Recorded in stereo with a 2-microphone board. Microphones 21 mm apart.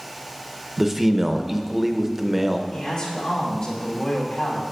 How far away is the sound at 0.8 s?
About 0.6 m.